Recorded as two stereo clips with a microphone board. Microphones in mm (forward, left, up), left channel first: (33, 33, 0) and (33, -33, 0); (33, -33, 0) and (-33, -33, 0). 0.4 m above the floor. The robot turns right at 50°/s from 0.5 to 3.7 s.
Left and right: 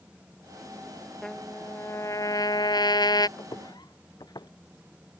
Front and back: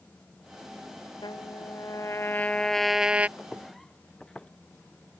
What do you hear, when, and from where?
1.2 s a trumpet: 5° left; by 3.3 s 110° left
3.4 s footsteps: 75° left; by 4.5 s 80° left